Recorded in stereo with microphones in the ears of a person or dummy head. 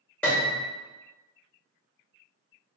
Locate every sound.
0.2 s a piano: 10° left (ahead or behind), 0.9 m